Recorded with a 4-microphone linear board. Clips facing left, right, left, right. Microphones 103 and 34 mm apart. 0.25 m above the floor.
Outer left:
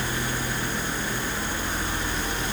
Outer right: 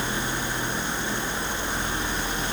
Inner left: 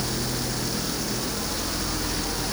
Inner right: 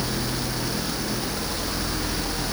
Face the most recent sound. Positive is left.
No sound to turn to.